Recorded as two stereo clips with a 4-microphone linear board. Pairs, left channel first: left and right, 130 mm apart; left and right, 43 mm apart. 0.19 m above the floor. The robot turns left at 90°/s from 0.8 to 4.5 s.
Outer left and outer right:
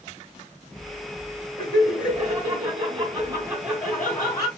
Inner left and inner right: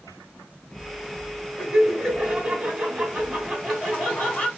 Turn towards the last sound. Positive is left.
turn(degrees=120)